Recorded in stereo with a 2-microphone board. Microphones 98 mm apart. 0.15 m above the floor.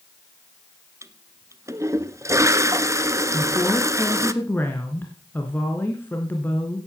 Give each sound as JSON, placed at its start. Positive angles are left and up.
{"t": 1.0, "sound": "a toilet flushing", "side_deg": -30, "distance_m": 0.8}
{"t": 3.3, "sound": "a woman speaking", "side_deg": 20, "distance_m": 2.0}